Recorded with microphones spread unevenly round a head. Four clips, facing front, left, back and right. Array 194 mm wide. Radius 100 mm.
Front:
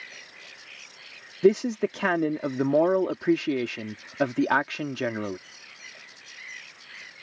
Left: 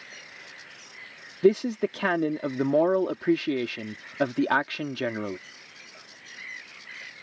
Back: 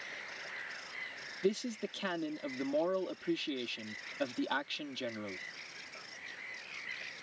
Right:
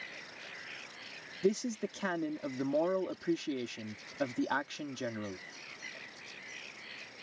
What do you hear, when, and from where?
1.4 s a man speaking: 45° left